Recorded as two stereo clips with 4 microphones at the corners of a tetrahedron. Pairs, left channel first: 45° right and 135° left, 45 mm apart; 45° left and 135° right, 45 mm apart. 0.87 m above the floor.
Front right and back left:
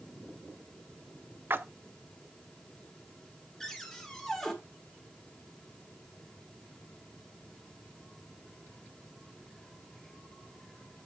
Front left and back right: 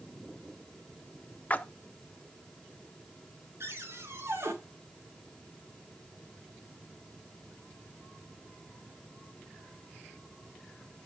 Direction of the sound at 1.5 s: 100° left.